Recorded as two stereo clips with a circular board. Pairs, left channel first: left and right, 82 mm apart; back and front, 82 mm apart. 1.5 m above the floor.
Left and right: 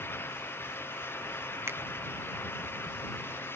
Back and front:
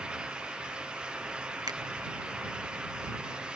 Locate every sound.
1.7 s a finger snap: 35° right